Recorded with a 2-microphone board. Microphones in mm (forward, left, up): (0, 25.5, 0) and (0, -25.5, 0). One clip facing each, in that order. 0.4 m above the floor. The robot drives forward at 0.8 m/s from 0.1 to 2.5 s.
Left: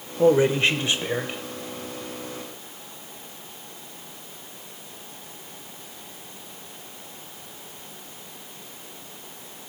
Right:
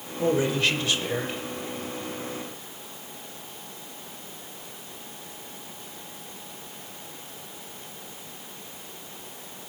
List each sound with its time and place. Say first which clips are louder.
0.2 s a man speaking: left 6 dB; 35° left (ahead or behind), 0.9 m; by 1.4 s 20° left (ahead or behind), 1.4 m